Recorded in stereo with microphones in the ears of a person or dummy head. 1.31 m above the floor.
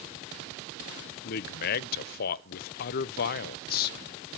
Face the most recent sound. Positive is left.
turn(degrees=55)  # may be behind; listen again after turning